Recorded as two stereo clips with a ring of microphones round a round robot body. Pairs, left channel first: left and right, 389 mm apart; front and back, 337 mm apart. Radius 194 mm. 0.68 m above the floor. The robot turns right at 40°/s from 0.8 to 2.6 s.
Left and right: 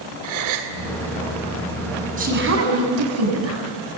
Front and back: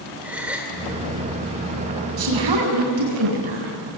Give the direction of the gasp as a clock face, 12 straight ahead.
3 o'clock.